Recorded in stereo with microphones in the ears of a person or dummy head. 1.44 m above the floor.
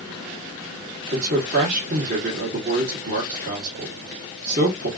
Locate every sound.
1.1 s a man speaking: 50° right (ahead or behind), 1.3 m